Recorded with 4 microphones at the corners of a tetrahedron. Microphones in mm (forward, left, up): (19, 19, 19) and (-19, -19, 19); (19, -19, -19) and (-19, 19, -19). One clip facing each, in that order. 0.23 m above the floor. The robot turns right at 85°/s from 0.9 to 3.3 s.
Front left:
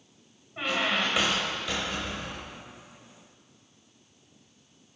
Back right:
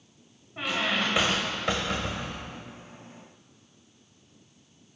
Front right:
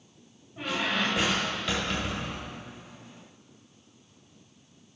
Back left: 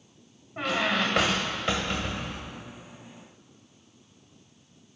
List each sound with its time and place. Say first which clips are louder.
0.6 s a squeak: even, back left 3 dB; 140° left, 2.0 m; by 2.6 s 75° right, 2.0 m